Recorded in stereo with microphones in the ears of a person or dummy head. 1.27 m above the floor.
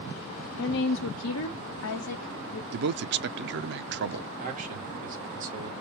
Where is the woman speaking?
55° left (ahead or behind), 0.7 m.